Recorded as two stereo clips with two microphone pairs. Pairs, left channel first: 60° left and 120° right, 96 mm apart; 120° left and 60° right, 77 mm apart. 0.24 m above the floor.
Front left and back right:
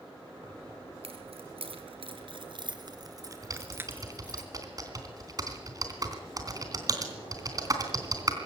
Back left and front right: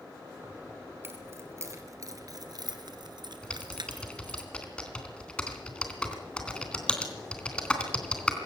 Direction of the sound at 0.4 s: 125° right.